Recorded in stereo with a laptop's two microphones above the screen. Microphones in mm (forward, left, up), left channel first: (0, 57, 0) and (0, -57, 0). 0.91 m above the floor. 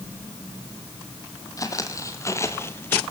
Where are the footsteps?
30° left (ahead or behind), 1.6 m; by 3.0 s 15° left (ahead or behind), 0.9 m.